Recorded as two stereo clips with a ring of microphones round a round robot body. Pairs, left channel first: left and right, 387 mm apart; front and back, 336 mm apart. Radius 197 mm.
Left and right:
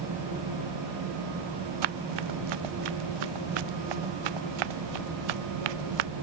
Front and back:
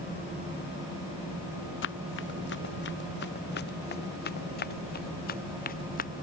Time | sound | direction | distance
1.8 | running footsteps | 65° right | ?